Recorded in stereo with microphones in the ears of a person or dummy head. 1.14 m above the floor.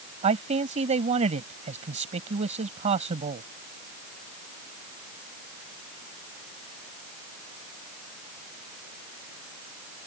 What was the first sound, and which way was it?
A man speaking, 30° right (ahead or behind).